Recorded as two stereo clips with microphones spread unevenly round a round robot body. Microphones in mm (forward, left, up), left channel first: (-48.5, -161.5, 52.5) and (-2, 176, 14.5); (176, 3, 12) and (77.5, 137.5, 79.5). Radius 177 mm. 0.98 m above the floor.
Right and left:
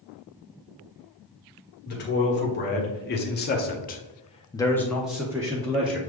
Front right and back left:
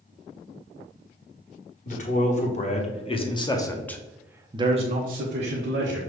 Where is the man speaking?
35° right, 1.6 m; by 6.0 s 150° left, 1.0 m.